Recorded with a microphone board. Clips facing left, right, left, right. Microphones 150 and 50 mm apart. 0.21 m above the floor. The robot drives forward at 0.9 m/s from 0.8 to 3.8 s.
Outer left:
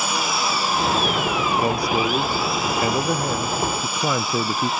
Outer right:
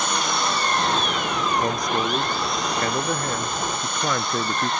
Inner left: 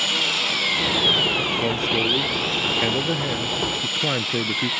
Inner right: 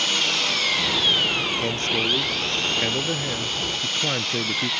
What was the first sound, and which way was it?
An engine running, 5° left (ahead or behind).